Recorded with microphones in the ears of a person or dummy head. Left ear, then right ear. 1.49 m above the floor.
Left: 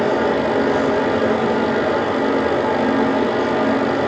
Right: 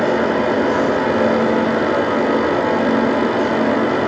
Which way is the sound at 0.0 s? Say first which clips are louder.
Right 1 dB; 10° right (ahead or behind).